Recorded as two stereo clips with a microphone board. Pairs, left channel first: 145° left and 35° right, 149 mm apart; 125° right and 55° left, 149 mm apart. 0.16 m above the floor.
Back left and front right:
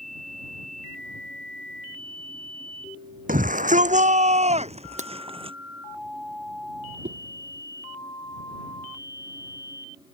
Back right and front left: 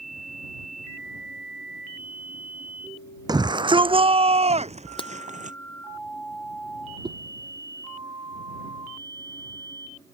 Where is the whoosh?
5° right.